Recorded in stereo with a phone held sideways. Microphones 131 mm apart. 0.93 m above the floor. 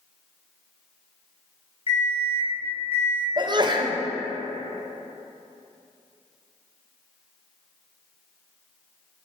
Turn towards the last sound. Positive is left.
turn(degrees=-35)  # may be behind; listen again after turning